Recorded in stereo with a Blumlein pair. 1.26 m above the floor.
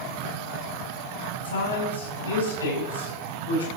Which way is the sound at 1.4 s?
65° left.